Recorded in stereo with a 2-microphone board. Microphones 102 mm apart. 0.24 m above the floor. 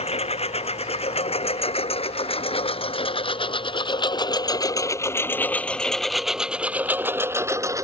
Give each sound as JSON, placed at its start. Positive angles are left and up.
{"t": 0.0, "sound": "a lawn mower", "side_deg": 80}